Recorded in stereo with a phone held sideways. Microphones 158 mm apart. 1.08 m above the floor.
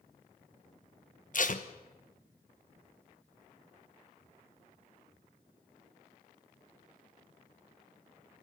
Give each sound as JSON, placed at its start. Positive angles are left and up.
{"t": 1.3, "sound": "tape being pulled", "side_deg": 55, "distance_m": 1.1}